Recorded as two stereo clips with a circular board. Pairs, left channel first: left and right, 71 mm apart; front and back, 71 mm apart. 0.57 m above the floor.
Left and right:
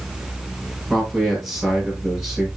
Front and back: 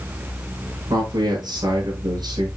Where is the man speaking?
170° right, 5.5 m.